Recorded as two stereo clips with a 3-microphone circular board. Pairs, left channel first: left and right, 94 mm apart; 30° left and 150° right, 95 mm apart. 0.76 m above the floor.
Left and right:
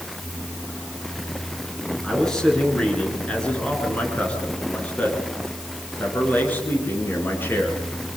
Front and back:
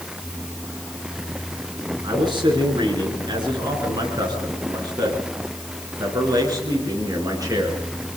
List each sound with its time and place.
2.0 s a man speaking: 175° left, 9 m; by 7.8 s 155° left, 10.5 m